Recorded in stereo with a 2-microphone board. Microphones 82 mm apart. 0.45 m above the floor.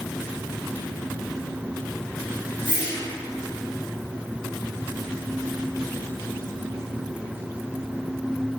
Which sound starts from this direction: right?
A whoosh, at 2.6 s.